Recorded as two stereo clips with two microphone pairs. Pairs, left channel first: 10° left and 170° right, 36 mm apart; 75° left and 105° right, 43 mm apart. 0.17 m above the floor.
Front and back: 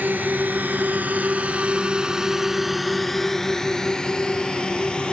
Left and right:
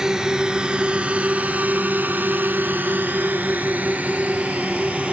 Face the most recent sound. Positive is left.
turn(degrees=-45)